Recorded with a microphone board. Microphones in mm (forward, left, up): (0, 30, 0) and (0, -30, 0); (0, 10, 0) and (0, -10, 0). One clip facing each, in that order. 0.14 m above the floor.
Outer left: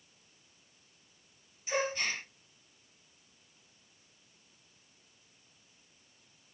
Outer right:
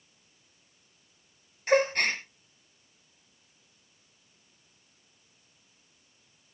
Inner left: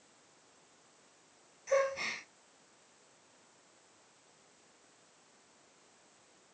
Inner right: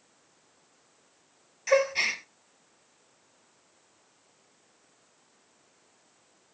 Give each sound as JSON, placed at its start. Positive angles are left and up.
{"t": 1.7, "sound": "a gasp", "side_deg": -60, "distance_m": 2.5}